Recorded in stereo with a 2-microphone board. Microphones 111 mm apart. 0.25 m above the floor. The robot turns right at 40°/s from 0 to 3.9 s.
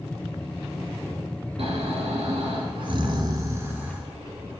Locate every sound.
1.6 s snoring: 105° right, 1.4 m; by 4.0 s 15° right, 1.4 m